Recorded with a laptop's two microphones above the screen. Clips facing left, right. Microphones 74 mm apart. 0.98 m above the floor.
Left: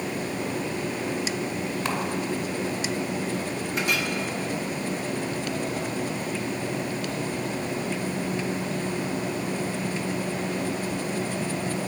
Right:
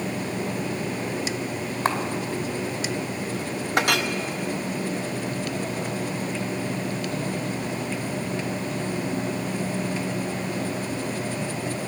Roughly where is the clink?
Right.